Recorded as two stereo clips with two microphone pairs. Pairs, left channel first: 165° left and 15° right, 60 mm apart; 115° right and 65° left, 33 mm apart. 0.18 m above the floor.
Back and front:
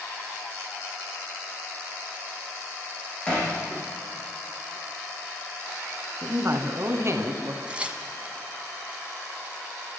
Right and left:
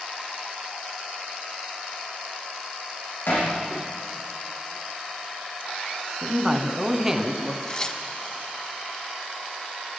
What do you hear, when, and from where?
3.3 s hammering: 120° right, 8.5 m
6.2 s a man speaking: 10° right, 2 m
7.7 s tearing paper: 70° right, 1.5 m